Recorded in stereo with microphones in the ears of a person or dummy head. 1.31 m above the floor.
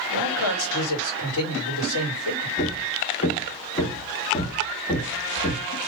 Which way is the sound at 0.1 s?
70° left (ahead or behind).